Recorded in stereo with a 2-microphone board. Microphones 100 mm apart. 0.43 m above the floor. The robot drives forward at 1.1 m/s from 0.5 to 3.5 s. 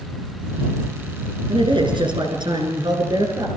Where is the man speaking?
60° right (ahead or behind), 5.5 m; by 3.5 s 45° right (ahead or behind), 7 m.